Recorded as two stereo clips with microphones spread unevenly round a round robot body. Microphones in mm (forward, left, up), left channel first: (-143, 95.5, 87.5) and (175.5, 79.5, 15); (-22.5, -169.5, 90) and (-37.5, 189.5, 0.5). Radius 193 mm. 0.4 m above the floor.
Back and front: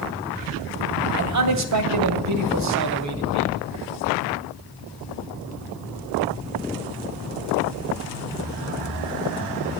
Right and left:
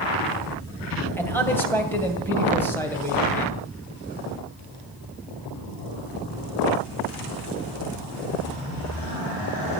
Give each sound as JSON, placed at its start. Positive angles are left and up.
{"t": 1.2, "sound": "a man speaking", "azimuth_deg": 5, "distance_m": 2.0}